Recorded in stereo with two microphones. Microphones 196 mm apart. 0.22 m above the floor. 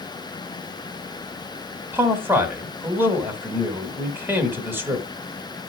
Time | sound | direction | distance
1.9 | a man speaking | 10° right (ahead or behind) | 1.6 m